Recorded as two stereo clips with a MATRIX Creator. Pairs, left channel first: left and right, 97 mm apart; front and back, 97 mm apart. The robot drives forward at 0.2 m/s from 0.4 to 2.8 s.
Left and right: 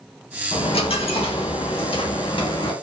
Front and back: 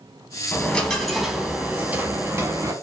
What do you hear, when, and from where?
0.5 s a dropped coin: 75° left, 0.5 m; by 2.7 s 120° left, 0.6 m